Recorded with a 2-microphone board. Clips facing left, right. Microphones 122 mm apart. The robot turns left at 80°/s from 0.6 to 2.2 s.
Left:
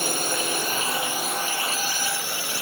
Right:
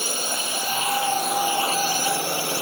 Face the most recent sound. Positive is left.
turn(degrees=-75)